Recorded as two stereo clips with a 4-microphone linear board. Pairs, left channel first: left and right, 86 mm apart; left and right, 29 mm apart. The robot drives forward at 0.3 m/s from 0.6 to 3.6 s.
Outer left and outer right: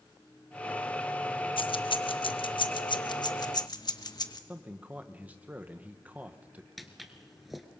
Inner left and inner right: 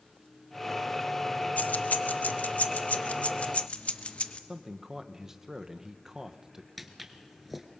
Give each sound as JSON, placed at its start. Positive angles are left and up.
{"t": 1.6, "sound": "keys jangling", "side_deg": 75, "distance_m": 0.7}
{"t": 4.5, "sound": "a man speaking", "side_deg": -20, "distance_m": 1.2}
{"t": 6.8, "sound": "footsteps", "side_deg": 0, "distance_m": 1.3}